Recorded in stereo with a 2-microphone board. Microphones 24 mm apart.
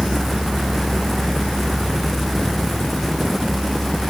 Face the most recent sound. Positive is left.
No sound to turn to.